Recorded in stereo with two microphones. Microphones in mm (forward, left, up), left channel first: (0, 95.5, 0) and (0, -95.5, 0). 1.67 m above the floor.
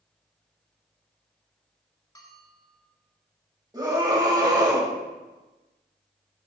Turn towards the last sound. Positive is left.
turn(degrees=-20)  # may be behind; listen again after turning